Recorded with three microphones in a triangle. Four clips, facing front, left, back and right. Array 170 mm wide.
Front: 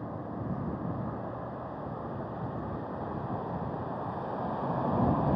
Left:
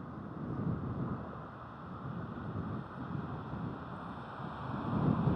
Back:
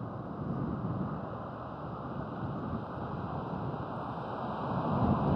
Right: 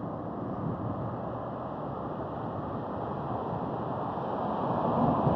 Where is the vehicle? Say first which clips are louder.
Right 9 dB, front 2 dB; 75° right.